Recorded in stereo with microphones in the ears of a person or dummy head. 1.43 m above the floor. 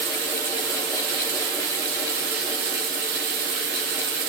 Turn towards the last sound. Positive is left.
turn(degrees=-55)  # may be behind; listen again after turning